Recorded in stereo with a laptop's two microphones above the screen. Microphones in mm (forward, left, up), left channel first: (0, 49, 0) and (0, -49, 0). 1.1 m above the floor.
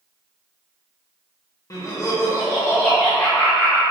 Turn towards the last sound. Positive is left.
turn(degrees=15)  # may be behind; listen again after turning